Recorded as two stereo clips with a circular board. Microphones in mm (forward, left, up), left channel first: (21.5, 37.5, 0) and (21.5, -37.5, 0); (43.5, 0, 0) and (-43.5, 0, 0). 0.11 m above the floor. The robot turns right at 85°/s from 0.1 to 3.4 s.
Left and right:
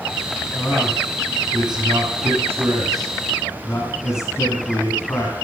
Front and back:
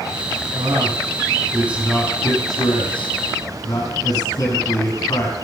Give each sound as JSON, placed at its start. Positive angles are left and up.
{"t": 0.6, "sound": "a man speaking", "azimuth_deg": 160, "distance_m": 4.5}